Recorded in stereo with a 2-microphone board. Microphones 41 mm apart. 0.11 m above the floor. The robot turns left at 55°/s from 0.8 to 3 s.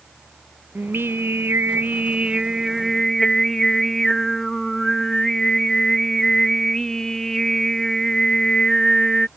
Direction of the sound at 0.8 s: 65° right.